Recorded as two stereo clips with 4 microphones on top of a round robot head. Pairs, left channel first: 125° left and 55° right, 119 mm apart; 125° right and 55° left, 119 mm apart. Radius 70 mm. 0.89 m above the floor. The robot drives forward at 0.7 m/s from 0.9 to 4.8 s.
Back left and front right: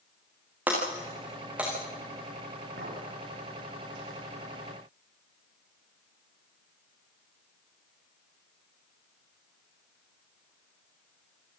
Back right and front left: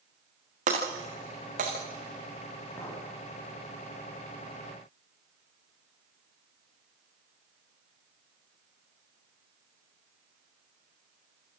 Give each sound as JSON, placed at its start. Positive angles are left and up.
{"t": 0.7, "sound": "breaking glass", "azimuth_deg": 25, "distance_m": 6.0}
{"t": 2.8, "sound": "a clink", "azimuth_deg": -55, "distance_m": 4.5}